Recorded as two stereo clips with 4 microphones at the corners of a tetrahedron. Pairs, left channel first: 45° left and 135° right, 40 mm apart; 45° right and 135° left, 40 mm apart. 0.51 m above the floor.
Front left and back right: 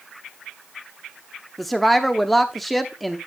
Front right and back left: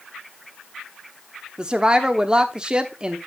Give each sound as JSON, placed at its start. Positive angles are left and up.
{"t": 1.6, "sound": "a woman speaking", "azimuth_deg": 130, "distance_m": 0.9}